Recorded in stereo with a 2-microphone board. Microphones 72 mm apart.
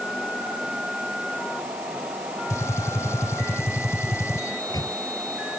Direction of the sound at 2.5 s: 45° left (ahead or behind).